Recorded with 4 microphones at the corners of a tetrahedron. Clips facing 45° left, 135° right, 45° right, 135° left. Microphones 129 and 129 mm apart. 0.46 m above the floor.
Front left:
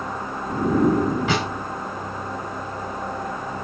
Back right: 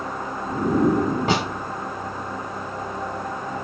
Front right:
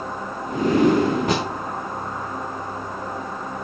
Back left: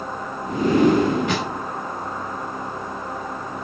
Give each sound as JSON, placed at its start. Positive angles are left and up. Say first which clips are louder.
{"t": 1.3, "sound": "a snare drum", "louder": "back right 1 dB, front right 2 dB", "azimuth_deg": -90, "distance_m": 2.5}